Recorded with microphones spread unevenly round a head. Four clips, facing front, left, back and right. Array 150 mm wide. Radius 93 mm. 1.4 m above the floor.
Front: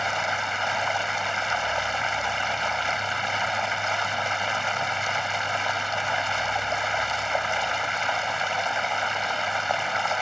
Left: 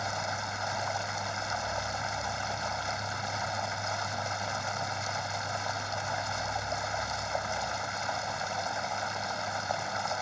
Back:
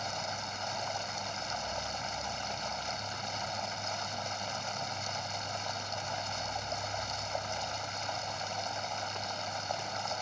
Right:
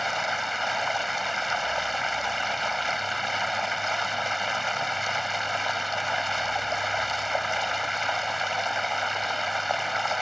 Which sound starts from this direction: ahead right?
Running water, at 0.0 s.